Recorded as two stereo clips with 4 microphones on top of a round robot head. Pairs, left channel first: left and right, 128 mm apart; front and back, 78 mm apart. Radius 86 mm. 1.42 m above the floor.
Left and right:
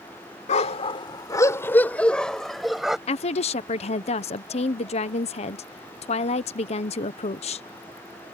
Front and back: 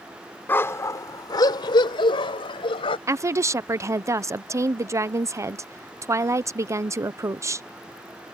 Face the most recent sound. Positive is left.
turn(degrees=130)